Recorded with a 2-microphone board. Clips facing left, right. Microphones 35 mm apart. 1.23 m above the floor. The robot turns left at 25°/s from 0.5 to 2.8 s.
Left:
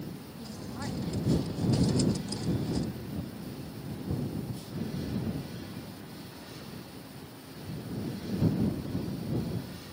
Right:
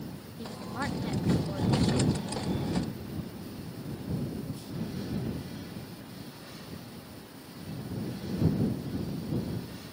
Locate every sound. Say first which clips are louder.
0.4 s a woman speaking: right 5 dB; 30° right; by 2.1 s 70° right